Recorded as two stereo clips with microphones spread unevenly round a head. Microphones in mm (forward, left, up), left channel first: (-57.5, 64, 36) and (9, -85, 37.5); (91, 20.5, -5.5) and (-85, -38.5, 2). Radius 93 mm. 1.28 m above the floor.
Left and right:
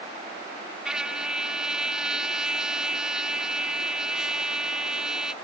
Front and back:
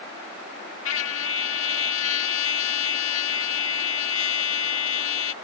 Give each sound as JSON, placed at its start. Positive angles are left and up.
{"t": 0.8, "sound": "a trumpet", "azimuth_deg": 20}